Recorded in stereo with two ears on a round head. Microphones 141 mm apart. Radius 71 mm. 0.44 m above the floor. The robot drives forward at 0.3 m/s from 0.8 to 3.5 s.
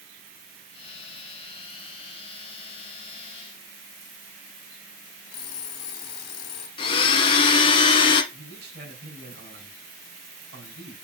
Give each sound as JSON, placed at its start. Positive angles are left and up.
{"t": 5.3, "sound": "an alarm clock", "side_deg": 70, "distance_m": 2.0}
{"t": 6.8, "sound": "a blender", "side_deg": 35, "distance_m": 1.1}
{"t": 8.3, "sound": "a man speaking", "side_deg": -65, "distance_m": 3.5}